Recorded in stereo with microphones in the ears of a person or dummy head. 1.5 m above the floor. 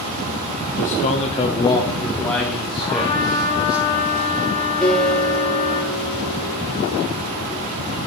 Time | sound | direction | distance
0.8 | a man speaking | 50° left (ahead or behind) | 1.1 m
2.8 | a trumpet | 35° left (ahead or behind) | 5 m
4.8 | a guitar | 10° left (ahead or behind) | 4.5 m